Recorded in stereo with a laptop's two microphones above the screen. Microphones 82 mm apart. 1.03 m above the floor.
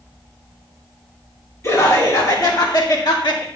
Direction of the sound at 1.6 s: 35° left (ahead or behind).